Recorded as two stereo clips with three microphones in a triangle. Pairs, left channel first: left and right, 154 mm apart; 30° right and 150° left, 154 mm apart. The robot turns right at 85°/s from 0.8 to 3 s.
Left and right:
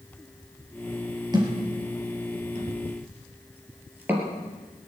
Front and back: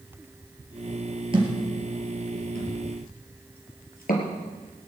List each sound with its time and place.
1.3 s a thud: 155° right, 4 m; by 4.3 s 10° right, 4 m